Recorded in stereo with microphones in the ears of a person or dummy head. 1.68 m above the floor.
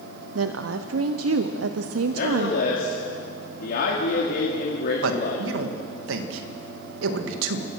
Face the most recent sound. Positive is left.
turn(degrees=-75)  # may be behind; listen again after turning